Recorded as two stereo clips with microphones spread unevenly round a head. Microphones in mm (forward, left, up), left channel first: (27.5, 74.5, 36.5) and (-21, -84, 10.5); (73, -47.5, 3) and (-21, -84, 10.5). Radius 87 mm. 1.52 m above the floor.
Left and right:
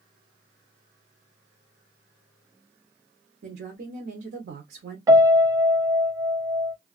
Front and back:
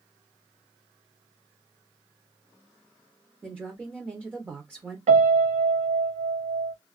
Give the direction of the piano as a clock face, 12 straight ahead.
6 o'clock.